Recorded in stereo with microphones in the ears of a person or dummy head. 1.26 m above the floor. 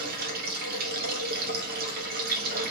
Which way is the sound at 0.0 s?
55° right (ahead or behind).